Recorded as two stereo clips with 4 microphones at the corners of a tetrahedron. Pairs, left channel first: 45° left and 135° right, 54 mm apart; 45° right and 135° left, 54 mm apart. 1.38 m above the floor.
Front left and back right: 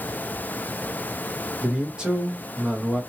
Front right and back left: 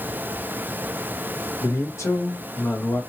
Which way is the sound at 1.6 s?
65° right.